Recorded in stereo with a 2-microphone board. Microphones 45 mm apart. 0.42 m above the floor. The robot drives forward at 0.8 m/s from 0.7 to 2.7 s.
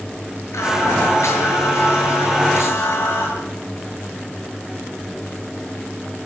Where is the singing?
80° left, 8 m; by 3.3 s 70° left (ahead or behind), 8.5 m.